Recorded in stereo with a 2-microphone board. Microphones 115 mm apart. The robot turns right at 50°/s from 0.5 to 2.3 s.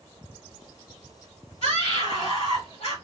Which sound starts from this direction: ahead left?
A scream, at 1.6 s.